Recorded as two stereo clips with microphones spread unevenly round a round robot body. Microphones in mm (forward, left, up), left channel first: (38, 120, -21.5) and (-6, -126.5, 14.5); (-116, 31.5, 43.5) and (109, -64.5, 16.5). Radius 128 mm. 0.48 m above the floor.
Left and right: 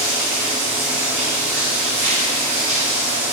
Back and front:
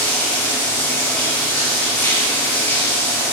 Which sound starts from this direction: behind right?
Running water, at 0.0 s.